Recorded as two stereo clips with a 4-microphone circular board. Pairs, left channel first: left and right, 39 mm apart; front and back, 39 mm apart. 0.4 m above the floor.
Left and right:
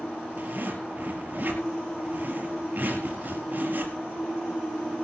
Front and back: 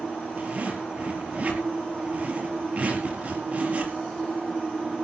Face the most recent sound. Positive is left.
turn(degrees=-130)